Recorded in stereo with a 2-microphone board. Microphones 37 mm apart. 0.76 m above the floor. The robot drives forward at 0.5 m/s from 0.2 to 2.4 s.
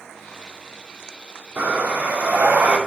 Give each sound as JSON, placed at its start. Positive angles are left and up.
{"t": 1.6, "sound": "breathing", "side_deg": -65, "distance_m": 2.0}